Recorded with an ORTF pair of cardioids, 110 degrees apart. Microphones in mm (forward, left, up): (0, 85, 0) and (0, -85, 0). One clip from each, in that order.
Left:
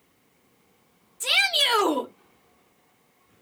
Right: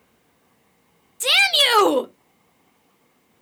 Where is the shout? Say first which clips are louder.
Right 5 dB; 30° right, 0.5 m.